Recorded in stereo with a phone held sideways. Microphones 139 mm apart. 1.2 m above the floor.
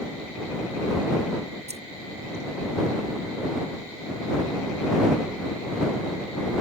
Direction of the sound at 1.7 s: 50° right (ahead or behind).